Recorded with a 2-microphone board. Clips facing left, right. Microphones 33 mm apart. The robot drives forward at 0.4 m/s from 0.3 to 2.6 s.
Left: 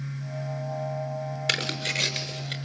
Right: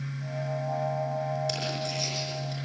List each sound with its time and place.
1.5 s tearing paper: 60° left (ahead or behind), 4 m; by 2.5 s 55° left (ahead or behind), 4.5 m